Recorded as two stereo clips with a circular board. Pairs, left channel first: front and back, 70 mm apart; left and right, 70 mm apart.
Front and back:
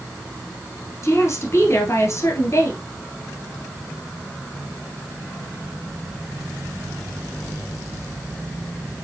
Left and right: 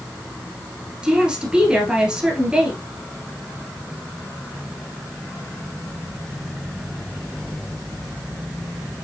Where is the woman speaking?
15° right, 1.5 m.